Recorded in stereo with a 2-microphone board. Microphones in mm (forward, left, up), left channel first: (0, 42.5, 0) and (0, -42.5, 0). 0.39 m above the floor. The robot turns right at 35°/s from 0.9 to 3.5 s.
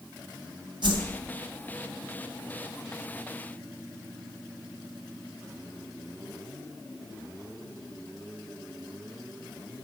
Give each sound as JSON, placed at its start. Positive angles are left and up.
{"t": 0.8, "sound": "a whoosh", "side_deg": -65, "distance_m": 3.0}